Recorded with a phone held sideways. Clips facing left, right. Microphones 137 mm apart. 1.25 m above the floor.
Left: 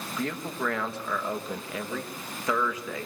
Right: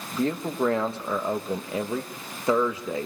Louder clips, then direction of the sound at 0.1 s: Right 7 dB; 30° right (ahead or behind).